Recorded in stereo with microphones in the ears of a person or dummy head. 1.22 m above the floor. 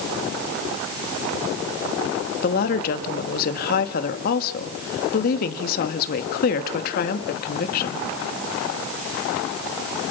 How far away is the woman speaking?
About 2 m.